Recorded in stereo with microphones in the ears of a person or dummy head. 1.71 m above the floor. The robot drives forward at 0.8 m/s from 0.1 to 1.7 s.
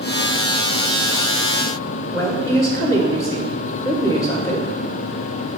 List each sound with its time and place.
2.1 s a woman speaking: 15° left (ahead or behind), 0.6 m